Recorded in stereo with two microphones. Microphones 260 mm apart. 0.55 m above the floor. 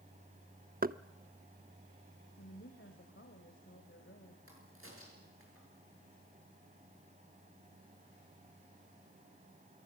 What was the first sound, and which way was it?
Knocking, 35° right (ahead or behind).